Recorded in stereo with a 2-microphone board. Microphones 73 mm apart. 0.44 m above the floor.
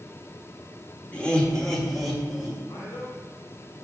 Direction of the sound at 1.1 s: 20° left (ahead or behind).